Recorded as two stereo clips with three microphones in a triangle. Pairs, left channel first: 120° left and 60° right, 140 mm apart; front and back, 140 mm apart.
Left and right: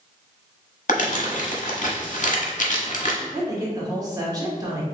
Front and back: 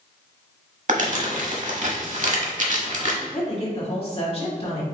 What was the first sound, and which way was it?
Crumpling, 150° left.